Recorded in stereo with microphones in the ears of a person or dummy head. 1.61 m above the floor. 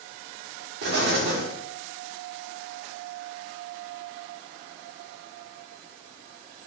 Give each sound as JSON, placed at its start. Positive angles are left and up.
{"t": 0.8, "sound": "an explosion", "side_deg": -65, "distance_m": 0.8}